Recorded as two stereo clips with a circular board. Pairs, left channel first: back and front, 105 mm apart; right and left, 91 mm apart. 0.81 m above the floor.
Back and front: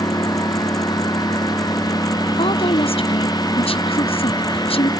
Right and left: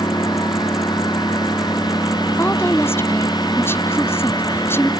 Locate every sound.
0.0 s a lawn mower: 130° right
2.4 s a woman speaking: 155° right